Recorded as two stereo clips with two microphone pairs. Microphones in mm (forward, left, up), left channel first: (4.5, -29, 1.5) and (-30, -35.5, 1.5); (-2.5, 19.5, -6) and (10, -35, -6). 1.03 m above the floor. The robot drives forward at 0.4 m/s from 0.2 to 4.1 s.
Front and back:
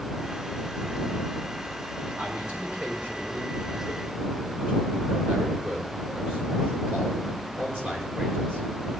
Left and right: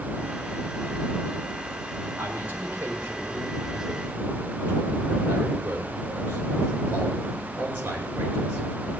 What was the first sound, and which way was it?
A man speaking, 130° right.